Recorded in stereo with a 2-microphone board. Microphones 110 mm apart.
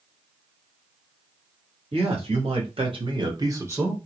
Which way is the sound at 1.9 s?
60° right (ahead or behind).